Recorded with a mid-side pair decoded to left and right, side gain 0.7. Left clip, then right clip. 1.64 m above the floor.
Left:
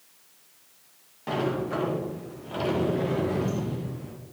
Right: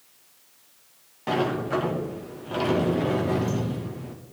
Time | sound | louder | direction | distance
1.3 | a sliding door | right 3 dB | 15° right | 2.5 m